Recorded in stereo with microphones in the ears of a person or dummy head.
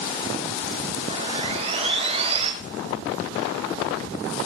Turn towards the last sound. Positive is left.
turn(degrees=-35)  # may be behind; listen again after turning